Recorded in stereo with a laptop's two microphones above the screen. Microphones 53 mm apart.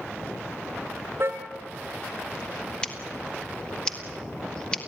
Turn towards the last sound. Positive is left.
turn(degrees=20)  # may be behind; listen again after turning